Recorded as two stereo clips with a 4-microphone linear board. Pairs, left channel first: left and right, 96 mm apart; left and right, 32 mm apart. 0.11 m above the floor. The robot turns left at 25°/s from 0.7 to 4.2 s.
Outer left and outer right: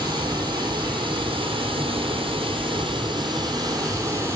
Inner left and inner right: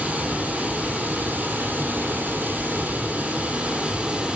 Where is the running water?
50° right, 2 m; by 4.4 s 140° right, 2 m.